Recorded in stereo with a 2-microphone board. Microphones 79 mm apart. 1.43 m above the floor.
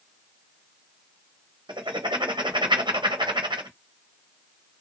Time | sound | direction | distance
1.7 | writing | 75° right (ahead or behind) | 0.9 m